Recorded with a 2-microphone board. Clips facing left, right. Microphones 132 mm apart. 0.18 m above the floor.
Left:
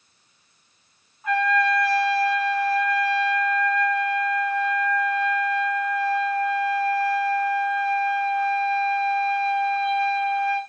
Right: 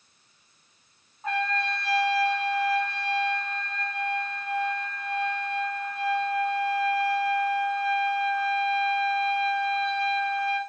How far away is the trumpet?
About 1.1 m.